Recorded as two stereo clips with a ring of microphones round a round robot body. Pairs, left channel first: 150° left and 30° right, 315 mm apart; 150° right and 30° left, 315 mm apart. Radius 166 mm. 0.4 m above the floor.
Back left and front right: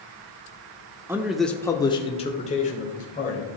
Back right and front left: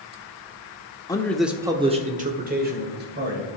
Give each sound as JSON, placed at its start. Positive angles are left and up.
{"t": 1.1, "sound": "a man speaking", "azimuth_deg": -95, "distance_m": 1.0}